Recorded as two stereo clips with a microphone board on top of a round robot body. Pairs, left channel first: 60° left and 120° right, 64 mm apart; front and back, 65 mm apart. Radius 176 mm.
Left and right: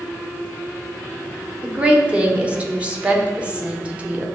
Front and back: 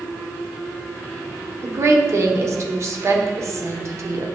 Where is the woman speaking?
175° left, 1.0 m.